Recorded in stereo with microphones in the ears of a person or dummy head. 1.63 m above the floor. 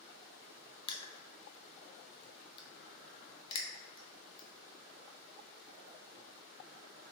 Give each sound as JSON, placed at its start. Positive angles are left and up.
{"t": 0.9, "sound": "crushing", "side_deg": 30, "distance_m": 0.5}